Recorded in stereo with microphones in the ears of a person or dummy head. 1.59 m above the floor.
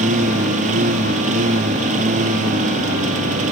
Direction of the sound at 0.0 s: 40° right (ahead or behind).